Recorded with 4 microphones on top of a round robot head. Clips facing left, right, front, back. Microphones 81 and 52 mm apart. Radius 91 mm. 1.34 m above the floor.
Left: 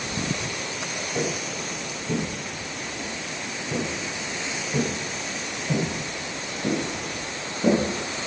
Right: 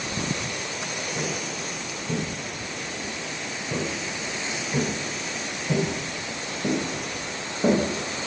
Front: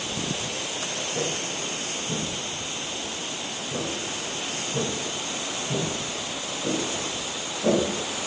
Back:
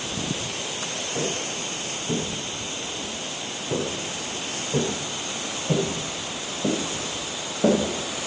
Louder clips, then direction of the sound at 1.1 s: Left 5 dB, back 2 dB; 105° left.